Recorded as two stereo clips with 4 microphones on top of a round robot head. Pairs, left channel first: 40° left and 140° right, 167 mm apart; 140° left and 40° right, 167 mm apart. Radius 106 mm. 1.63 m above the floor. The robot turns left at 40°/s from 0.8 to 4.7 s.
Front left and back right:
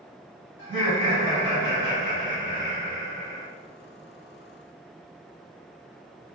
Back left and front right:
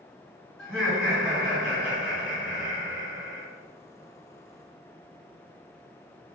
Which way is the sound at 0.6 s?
125° right.